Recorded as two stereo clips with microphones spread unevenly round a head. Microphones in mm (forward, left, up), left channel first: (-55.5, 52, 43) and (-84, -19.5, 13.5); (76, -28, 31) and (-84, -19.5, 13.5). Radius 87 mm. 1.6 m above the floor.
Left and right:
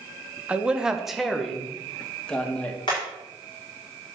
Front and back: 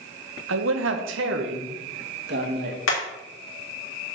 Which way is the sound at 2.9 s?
5° left.